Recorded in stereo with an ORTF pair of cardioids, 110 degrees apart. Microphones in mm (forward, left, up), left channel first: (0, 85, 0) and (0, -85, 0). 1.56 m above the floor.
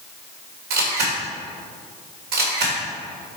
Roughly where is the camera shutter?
Right.